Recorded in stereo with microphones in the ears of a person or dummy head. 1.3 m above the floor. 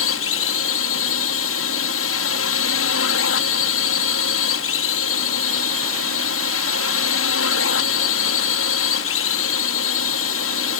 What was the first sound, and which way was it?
A drone, 65° left (ahead or behind).